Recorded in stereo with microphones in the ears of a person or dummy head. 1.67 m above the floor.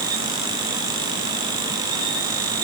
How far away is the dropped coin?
I don't hear a dropped coin.